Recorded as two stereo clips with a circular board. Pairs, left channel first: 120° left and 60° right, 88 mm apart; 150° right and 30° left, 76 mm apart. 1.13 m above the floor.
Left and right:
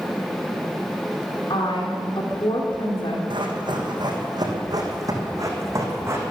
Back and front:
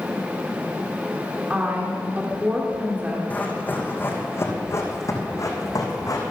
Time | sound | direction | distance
1.5 | a woman speaking | 100° left | 2.5 m
3.3 | running footsteps | 80° right | 3.5 m